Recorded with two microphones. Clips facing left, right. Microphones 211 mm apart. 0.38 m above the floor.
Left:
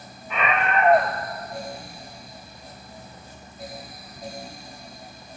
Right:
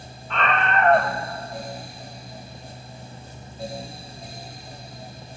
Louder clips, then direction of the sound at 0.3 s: Even; 10° left (ahead or behind).